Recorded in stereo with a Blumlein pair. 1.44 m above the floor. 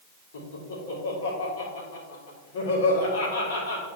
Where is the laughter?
60° left, 3.5 m.